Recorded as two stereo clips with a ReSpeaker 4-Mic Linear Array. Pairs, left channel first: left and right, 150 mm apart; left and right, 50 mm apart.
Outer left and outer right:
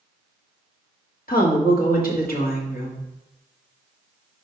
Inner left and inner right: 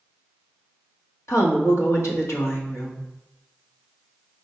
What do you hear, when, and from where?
1.3 s a woman speaking: 80° left, 1.5 m